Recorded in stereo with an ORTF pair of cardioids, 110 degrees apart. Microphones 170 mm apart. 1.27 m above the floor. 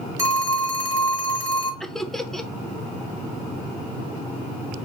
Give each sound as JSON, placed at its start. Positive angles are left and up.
{"t": 0.2, "sound": "a phone ringing", "azimuth_deg": -20, "distance_m": 1.6}
{"t": 1.8, "sound": "laughter", "azimuth_deg": 0, "distance_m": 0.6}